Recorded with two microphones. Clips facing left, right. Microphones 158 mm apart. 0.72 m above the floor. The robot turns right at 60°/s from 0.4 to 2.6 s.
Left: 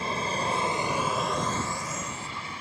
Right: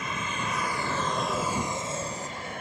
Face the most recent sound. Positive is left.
turn(degrees=-55)  # may be behind; listen again after turning